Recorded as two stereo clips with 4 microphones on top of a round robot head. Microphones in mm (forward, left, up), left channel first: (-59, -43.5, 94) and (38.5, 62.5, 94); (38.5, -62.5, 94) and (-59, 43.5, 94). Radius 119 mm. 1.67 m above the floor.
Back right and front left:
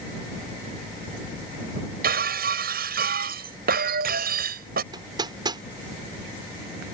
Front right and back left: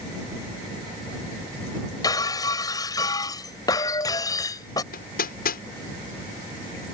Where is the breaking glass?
20° left.